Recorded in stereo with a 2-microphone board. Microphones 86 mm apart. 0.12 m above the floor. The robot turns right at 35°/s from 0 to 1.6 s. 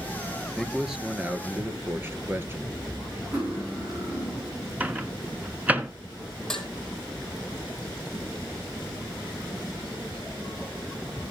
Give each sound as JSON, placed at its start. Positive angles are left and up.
{"t": 0.6, "sound": "a man speaking", "azimuth_deg": 175, "distance_m": 1.7}
{"t": 3.3, "sound": "cutlery clinking", "side_deg": -25, "distance_m": 8.0}
{"t": 4.8, "sound": "a microwave", "side_deg": -20, "distance_m": 1.3}
{"t": 6.5, "sound": "dishes clattering", "side_deg": 5, "distance_m": 3.0}